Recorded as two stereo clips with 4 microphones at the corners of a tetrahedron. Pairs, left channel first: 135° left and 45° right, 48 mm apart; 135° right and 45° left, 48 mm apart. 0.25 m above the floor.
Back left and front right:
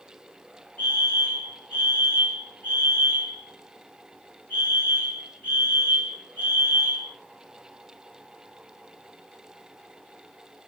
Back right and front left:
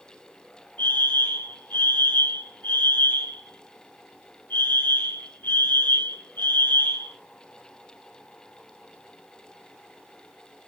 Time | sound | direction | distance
0.8 | a fire alarm | straight behind | 6 m